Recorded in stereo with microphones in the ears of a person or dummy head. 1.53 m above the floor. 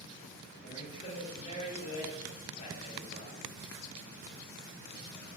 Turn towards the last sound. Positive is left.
turn(degrees=35)  # may be behind; listen again after turning